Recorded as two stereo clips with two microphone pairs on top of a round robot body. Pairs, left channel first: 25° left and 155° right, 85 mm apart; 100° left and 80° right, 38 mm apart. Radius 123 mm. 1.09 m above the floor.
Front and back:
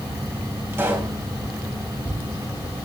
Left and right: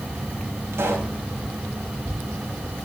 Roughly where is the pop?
Right.